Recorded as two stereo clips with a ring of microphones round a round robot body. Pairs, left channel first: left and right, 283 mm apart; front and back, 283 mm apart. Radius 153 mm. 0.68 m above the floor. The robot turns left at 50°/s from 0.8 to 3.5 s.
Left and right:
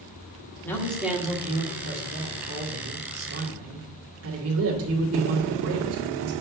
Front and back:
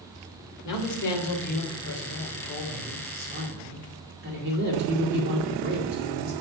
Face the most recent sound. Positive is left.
turn(degrees=-125)